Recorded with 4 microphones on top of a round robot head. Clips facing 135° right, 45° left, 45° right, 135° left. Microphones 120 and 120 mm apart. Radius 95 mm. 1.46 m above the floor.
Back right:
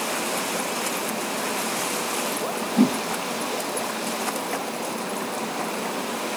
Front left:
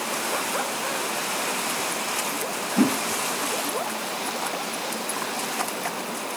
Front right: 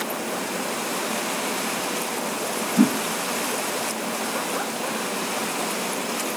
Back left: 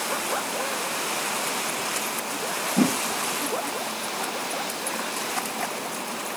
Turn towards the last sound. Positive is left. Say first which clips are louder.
# back right 2 dB, front right 3 dB
turn(degrees=160)